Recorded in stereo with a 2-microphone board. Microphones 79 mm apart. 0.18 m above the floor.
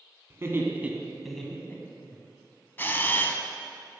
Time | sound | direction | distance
0.3 | laughter | 35° right (ahead or behind) | 1.3 m
2.8 | a camera shutter | 30° left (ahead or behind) | 0.5 m